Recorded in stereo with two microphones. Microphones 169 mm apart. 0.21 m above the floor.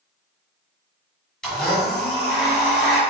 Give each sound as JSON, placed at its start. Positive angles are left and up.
{"t": 1.4, "sound": "a blender", "side_deg": 5, "distance_m": 1.5}